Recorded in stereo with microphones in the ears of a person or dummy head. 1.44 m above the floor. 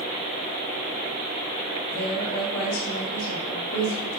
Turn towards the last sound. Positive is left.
turn(degrees=50)  # may be behind; listen again after turning